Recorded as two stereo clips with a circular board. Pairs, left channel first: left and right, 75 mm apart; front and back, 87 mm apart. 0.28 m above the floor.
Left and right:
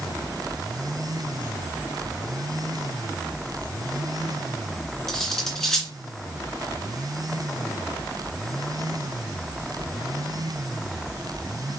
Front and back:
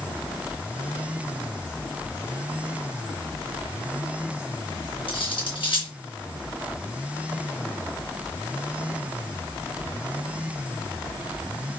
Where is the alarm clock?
No alarm clock in this recording.